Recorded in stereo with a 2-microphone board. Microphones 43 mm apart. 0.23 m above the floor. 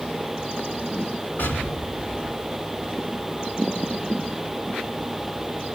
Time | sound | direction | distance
1.4 | an explosion | 55° left (ahead or behind) | 2.5 m